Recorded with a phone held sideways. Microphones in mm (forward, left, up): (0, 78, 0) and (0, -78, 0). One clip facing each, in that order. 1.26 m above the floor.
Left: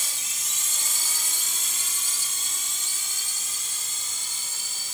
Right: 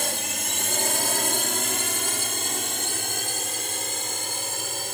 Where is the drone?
60° right (ahead or behind).